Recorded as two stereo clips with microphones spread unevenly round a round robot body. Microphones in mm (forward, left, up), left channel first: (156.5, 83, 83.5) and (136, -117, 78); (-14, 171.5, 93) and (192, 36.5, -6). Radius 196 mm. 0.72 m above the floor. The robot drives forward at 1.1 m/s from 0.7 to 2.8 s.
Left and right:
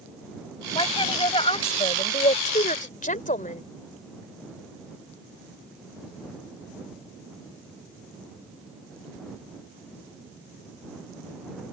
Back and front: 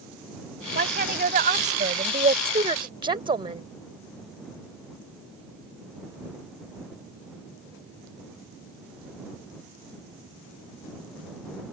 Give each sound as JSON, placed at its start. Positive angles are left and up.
{"t": 0.8, "sound": "a woman speaking", "azimuth_deg": 20}